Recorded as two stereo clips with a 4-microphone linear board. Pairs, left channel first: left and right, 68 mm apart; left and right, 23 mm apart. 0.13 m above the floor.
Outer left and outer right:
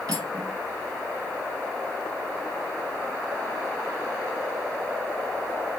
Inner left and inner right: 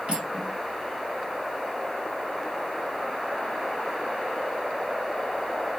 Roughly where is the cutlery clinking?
Right.